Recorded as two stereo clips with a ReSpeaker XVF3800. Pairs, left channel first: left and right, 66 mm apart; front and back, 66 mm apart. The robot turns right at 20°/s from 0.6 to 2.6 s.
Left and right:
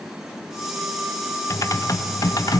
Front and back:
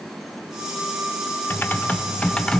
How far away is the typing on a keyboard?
About 0.6 m.